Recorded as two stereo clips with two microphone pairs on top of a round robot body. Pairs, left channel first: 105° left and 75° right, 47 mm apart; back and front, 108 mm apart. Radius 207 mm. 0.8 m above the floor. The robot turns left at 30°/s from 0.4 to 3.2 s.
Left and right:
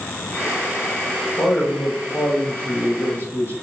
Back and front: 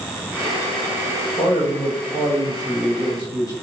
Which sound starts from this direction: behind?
A man speaking, at 1.4 s.